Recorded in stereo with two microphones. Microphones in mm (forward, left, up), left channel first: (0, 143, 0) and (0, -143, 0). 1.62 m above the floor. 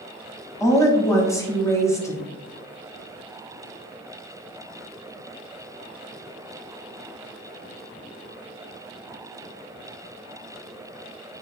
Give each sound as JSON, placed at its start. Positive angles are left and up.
{"t": 0.6, "sound": "a woman speaking", "side_deg": 10, "distance_m": 0.6}